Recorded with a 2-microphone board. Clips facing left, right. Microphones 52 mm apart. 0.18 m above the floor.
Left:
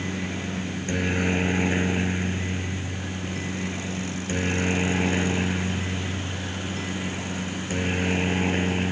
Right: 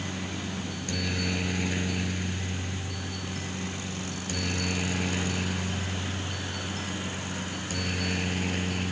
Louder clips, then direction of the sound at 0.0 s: Left 4 dB; 30° left (ahead or behind).